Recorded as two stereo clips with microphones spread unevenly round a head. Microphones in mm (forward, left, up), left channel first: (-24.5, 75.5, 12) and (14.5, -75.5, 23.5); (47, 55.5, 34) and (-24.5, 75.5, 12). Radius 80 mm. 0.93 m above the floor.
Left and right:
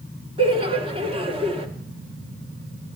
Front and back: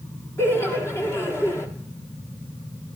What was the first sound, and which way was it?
Laughter, 75° right.